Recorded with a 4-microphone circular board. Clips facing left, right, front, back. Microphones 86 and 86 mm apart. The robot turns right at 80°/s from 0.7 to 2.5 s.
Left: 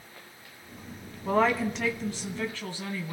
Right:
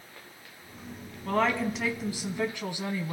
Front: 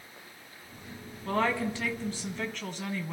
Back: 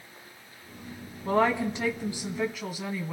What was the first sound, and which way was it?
A woman speaking, 145° left.